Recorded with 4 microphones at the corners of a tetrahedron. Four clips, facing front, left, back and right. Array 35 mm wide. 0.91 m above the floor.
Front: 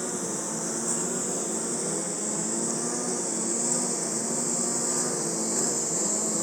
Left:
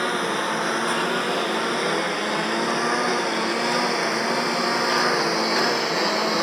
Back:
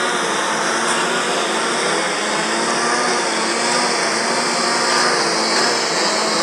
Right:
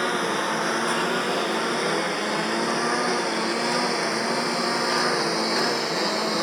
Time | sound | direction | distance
0.0 | a lawn mower | straight behind | ?